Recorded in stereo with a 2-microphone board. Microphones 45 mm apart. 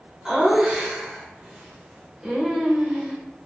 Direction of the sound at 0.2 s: 15° right (ahead or behind).